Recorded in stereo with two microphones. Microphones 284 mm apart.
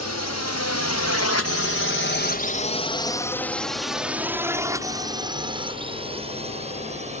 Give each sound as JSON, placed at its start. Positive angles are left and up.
{"t": 0.0, "sound": "a drone", "side_deg": 70}